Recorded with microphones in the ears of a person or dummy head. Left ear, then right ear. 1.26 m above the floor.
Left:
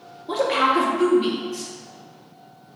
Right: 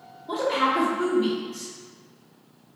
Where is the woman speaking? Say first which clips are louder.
Left 4 dB; 20° left (ahead or behind), 0.8 m.